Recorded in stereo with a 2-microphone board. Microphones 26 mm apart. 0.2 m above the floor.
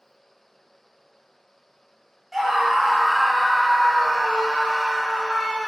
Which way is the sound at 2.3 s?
10° right (ahead or behind).